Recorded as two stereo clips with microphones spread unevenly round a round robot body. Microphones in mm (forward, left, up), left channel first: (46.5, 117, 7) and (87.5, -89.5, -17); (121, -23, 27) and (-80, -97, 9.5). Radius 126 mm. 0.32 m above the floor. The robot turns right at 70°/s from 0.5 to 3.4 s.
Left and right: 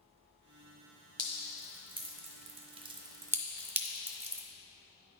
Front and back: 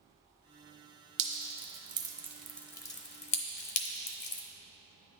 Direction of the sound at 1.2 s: 165° right.